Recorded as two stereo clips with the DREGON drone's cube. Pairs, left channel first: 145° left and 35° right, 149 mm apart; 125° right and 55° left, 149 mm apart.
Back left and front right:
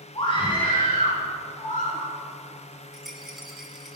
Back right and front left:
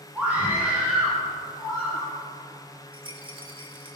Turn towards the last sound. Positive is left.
turn(degrees=55)